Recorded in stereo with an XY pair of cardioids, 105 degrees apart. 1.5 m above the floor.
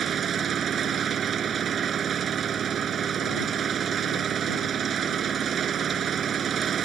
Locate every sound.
0.0 s an engine running: 50° right